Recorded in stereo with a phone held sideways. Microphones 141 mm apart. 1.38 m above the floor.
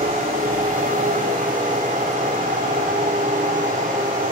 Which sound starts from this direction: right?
A machine running, at 0.0 s.